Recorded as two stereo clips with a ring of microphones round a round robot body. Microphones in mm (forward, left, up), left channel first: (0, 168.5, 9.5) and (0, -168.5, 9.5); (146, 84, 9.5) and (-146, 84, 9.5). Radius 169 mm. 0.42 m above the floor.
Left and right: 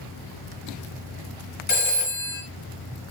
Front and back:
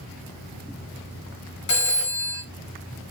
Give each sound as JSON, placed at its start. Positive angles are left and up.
{"t": 1.7, "sound": "a phone ringing", "azimuth_deg": 30, "distance_m": 1.7}